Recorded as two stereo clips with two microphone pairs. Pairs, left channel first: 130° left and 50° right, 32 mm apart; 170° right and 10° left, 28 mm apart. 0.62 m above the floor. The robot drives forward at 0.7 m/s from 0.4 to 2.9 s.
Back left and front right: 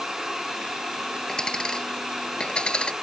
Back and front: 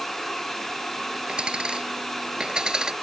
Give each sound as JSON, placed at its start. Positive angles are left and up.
{"t": 1.3, "sound": "a dropped coin", "azimuth_deg": 65}